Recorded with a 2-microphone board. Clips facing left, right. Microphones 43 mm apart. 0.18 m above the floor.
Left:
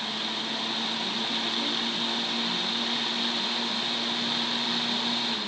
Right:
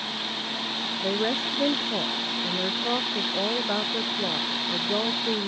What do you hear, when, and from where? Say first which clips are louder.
1.0 s a woman speaking: right 4 dB; 80° right